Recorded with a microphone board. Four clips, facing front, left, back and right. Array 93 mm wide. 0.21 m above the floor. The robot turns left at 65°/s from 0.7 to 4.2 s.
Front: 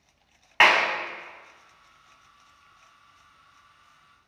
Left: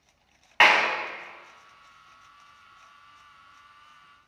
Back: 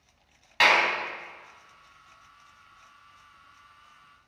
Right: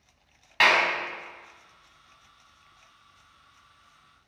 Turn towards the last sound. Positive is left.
turn(degrees=165)